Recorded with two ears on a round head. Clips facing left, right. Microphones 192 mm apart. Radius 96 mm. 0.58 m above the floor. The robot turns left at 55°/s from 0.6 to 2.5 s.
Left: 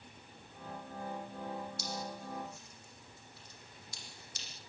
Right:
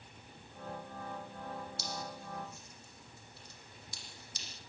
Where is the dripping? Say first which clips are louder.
Left 2 dB; 50° right (ahead or behind), 6.5 m; by 4.5 s 85° right, 6.5 m.